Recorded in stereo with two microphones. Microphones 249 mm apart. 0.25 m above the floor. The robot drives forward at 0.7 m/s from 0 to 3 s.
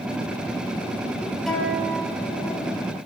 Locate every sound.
1.5 s a guitar: centre (ahead or behind), 8 m